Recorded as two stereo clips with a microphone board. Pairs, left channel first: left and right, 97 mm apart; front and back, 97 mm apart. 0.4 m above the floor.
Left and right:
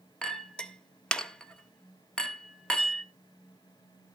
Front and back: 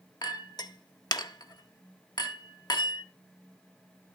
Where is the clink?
10° left, 0.9 m.